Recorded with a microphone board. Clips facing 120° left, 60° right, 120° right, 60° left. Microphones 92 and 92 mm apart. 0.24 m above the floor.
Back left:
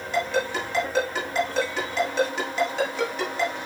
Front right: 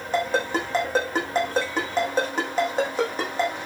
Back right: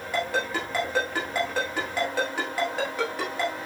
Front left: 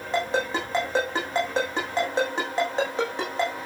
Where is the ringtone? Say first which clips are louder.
Front right 1 dB, front left 2 dB; 5° right, 5.5 m.